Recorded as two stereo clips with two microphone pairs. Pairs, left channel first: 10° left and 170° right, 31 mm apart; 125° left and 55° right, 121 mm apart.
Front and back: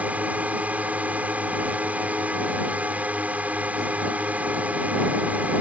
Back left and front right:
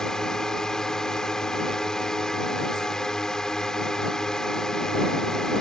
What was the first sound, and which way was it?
A drone, 150° right.